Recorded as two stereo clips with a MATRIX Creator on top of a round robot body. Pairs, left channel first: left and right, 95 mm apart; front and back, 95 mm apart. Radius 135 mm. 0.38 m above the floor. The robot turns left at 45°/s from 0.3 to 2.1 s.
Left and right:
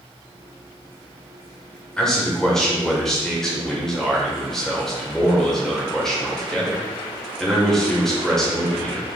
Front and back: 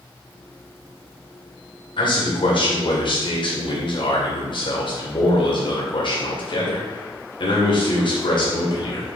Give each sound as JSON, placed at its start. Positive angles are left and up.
{"t": 2.0, "sound": "a man speaking", "azimuth_deg": 10, "distance_m": 2.0}